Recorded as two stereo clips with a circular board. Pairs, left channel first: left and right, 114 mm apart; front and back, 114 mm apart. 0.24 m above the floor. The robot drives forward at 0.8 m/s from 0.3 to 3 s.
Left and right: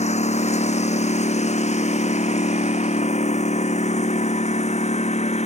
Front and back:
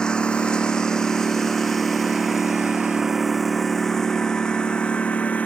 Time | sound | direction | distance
0.0 | a lawn mower | 85° left | ?